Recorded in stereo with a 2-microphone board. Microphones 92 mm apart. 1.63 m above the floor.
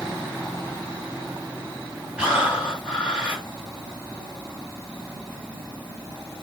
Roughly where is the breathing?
Centre.